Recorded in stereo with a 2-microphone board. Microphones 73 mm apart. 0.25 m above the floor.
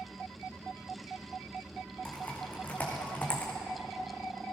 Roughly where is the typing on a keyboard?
Left.